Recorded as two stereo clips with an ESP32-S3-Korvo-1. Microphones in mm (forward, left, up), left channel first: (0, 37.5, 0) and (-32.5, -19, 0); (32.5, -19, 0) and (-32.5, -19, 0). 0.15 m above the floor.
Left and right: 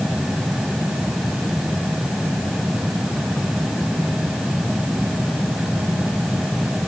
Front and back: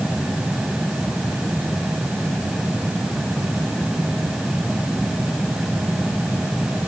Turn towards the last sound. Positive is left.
No sound to turn to.